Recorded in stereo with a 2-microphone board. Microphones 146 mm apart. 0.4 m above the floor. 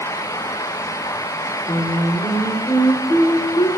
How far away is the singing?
About 0.9 m.